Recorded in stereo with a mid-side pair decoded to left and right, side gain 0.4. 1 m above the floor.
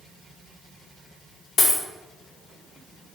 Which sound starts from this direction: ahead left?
A dropped coin, at 1.6 s.